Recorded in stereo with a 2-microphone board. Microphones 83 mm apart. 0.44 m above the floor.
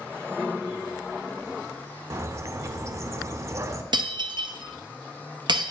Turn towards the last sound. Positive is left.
turn(degrees=-65)  # may be behind; listen again after turning